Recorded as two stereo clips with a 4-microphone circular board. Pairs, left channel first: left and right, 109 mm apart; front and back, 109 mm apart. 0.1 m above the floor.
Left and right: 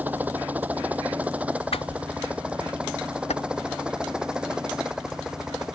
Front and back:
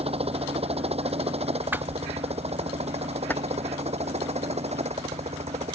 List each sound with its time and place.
0.0 s a helicopter: 165° right; by 5.8 s 175° right
1.7 s a whoosh: 110° left
3.3 s keys jangling: 70° left